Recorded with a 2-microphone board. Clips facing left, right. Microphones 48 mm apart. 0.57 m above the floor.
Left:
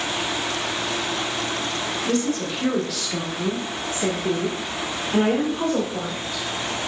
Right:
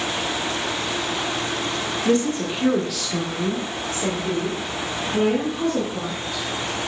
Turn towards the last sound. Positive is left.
turn(degrees=60)  # may be behind; listen again after turning